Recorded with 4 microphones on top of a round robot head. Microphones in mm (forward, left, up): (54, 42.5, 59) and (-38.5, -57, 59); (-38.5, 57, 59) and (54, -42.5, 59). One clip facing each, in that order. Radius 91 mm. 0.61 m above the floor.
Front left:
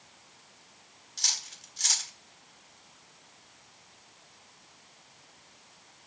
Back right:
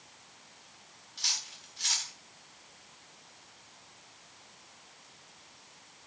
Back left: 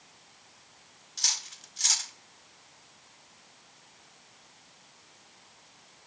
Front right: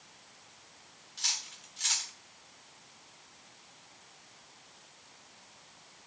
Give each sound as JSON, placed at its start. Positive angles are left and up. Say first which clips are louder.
{"t": 1.2, "sound": "cutlery clinking", "louder": "front left 1 dB, back left 2 dB", "azimuth_deg": 85, "distance_m": 1.3}